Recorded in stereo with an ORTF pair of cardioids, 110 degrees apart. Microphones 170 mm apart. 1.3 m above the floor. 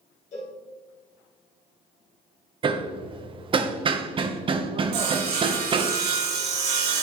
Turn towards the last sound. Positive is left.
turn(degrees=-70)